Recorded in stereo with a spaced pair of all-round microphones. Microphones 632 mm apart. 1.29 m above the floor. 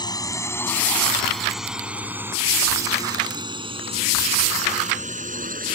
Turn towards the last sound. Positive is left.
turn(degrees=-15)  # may be behind; listen again after turning